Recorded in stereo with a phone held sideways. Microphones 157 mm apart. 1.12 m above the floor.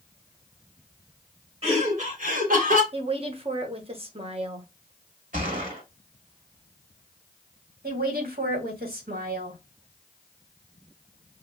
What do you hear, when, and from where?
1.6 s laughter: 45° right (ahead or behind), 2 m; by 2.8 s 60° right (ahead or behind), 1.5 m
2.9 s a woman speaking: 40° right (ahead or behind), 0.9 m
5.3 s a gunshot: 60° right (ahead or behind), 1.5 m
7.8 s a woman speaking: 80° right, 1.9 m